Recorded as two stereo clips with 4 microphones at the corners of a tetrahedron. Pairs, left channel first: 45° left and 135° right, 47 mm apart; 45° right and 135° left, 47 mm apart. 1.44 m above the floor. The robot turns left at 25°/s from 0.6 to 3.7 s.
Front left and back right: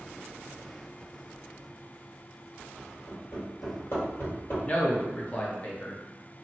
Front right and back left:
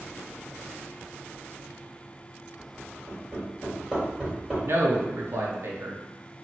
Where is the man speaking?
105° left, 0.7 m.